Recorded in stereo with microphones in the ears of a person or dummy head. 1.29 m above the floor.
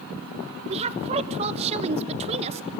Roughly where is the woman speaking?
Right.